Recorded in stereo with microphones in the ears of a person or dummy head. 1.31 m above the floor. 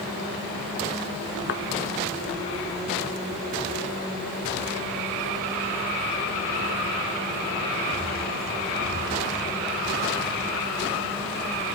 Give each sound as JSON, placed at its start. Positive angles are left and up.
{"t": 1.5, "sound": "a thud", "side_deg": 60}